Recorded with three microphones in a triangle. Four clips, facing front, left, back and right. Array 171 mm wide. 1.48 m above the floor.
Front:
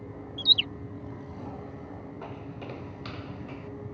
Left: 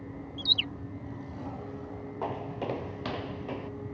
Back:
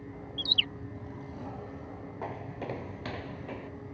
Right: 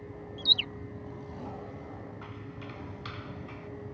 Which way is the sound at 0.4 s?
Straight ahead.